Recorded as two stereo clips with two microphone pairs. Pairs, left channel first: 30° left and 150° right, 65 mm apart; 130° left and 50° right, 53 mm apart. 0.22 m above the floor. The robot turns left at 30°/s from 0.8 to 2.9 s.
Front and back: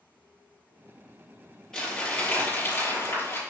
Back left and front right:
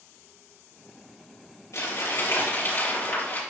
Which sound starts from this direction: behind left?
Crumpling, at 1.7 s.